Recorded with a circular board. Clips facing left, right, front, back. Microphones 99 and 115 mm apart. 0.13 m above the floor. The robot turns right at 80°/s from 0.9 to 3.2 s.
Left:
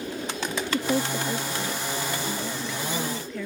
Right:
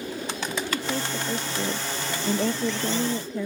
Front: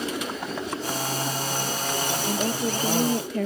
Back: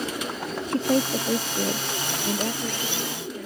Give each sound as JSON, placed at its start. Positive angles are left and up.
{"t": 0.7, "sound": "a woman speaking", "azimuth_deg": 155}